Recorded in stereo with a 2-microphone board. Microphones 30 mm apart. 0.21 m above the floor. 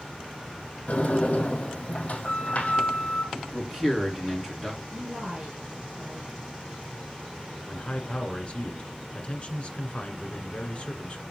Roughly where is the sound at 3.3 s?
Centre.